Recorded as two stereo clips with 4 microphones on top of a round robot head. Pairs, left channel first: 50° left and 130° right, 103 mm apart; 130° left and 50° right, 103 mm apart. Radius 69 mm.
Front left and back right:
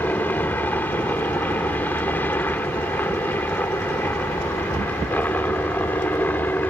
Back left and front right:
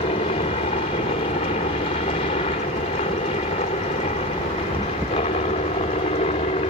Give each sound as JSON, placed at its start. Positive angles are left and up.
{"t": 0.0, "sound": "a helicopter", "azimuth_deg": 120}